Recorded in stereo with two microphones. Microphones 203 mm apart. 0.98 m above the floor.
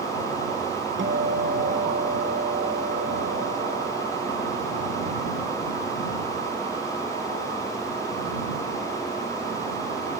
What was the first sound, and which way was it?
A guitar, 65° right (ahead or behind).